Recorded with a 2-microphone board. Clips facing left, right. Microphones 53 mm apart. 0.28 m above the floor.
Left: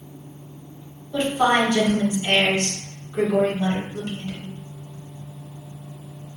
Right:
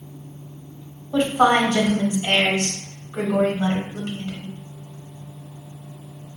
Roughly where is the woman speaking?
Right.